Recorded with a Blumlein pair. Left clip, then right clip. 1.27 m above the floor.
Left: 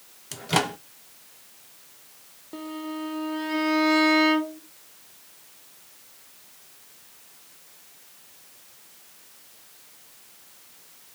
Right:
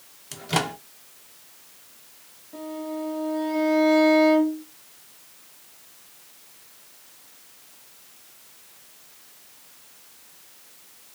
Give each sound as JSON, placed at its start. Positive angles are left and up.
{"t": 0.3, "sound": "a microwave", "azimuth_deg": 5, "distance_m": 0.5}
{"t": 2.5, "sound": "a violin", "azimuth_deg": 65, "distance_m": 1.2}